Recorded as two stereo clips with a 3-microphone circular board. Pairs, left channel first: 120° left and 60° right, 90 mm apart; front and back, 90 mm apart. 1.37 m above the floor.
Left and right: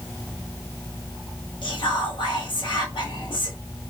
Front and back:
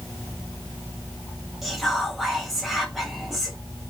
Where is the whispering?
90° left, 0.6 m.